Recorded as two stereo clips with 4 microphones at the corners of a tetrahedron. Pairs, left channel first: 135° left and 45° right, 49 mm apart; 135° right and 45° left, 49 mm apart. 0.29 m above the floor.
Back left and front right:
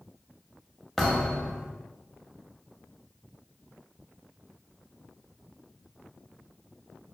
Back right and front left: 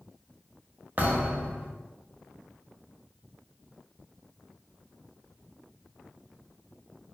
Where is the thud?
55° left, 0.6 m.